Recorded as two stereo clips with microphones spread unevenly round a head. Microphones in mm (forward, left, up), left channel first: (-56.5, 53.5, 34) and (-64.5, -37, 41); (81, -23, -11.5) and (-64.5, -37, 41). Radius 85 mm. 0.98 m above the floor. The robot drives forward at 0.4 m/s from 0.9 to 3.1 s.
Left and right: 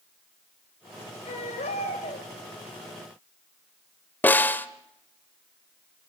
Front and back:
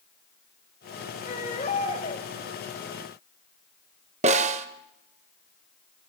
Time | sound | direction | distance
1.2 | a baby crying | 60° left | 4.5 m
4.2 | a snare drum | 155° left | 1.1 m